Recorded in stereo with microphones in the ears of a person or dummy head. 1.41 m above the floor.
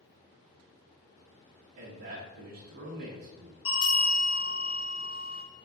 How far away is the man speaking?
About 0.5 m.